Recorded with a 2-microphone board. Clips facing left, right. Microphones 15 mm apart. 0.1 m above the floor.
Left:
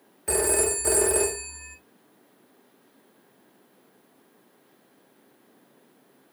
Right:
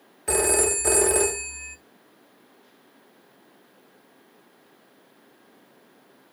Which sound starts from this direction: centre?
A phone ringing, at 0.3 s.